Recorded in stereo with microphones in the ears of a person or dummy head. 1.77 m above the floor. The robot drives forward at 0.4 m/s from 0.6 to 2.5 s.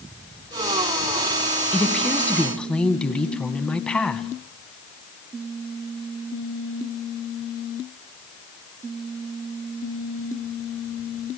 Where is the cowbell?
I don't hear a cowbell.